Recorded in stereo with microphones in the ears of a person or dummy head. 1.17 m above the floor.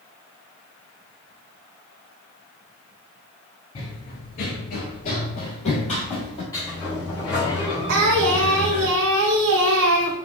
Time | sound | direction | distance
3.8 | running footsteps | 30° left (ahead or behind) | 1.3 m
6.5 | a sliding door | 20° left (ahead or behind) | 2 m
7.9 | singing | 70° right (ahead or behind) | 0.9 m